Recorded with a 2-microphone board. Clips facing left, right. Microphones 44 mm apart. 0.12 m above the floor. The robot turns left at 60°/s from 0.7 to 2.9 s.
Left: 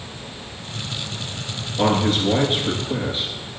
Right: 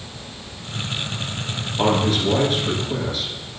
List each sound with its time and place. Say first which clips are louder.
1.8 s a man speaking: even; 100° left, 2 m; by 3.3 s 35° left, 2 m